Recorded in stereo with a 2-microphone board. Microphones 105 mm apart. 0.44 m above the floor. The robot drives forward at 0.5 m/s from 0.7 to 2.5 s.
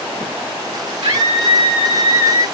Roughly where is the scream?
Right.